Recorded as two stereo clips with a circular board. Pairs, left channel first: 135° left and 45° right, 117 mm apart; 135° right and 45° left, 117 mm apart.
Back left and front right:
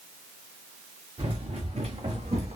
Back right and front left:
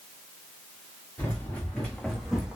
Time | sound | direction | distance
1.2 | running footsteps | 65° right | 1.6 m